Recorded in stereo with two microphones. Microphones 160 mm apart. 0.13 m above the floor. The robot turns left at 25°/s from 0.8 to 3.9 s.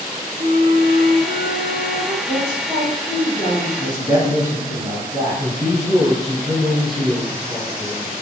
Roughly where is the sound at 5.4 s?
Centre.